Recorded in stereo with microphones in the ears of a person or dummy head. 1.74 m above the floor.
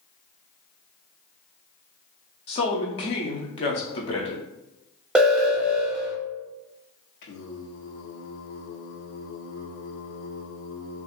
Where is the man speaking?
30° left (ahead or behind), 0.5 m.